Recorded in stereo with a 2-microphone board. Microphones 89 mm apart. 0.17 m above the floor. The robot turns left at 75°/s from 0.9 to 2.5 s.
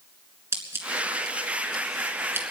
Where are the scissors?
30° right (ahead or behind), 2.5 m; by 2.5 s 20° right (ahead or behind), 2.5 m.